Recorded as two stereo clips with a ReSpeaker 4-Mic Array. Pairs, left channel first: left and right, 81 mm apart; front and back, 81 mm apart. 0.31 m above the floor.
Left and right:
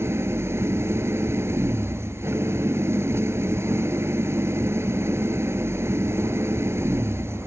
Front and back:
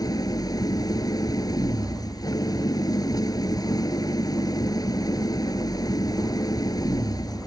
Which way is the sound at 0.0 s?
35° right.